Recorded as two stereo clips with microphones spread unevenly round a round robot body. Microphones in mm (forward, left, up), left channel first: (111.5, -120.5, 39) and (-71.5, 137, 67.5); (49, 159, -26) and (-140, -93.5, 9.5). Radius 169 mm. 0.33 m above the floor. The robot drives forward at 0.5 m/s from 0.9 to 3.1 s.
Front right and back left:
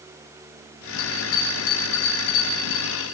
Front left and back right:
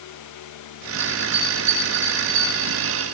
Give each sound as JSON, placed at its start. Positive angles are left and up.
{"t": 1.0, "sound": "a bell", "azimuth_deg": -55, "distance_m": 8.5}